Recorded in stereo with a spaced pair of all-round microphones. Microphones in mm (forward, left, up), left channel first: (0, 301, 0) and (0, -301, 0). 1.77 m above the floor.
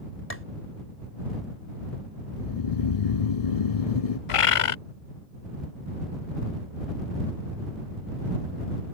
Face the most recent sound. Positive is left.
turn(degrees=60)  # may be behind; listen again after turning